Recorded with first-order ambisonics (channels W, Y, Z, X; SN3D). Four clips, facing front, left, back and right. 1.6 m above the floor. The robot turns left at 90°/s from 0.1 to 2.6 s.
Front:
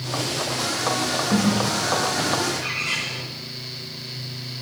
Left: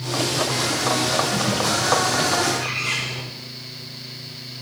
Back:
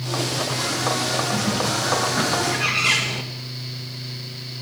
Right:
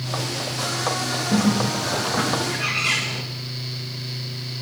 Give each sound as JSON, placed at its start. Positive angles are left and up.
{"t": 1.3, "sound": "a bird", "azimuth_deg": -50, "distance_m": 2.0}